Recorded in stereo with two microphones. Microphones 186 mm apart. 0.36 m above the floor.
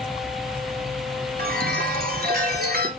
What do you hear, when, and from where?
1.4 s a chime: 55° right (ahead or behind), 1.7 m